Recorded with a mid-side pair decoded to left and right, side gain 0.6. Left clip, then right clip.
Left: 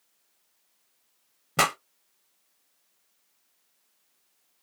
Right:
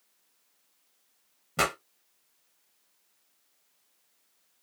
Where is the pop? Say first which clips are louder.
Left 4 dB; 35° left, 1.2 m.